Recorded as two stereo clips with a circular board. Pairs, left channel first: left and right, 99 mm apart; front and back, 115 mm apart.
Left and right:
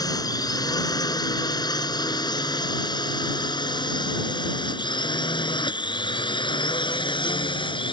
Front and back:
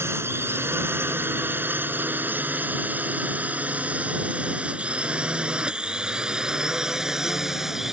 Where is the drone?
120° left; by 7.9 s 95° left.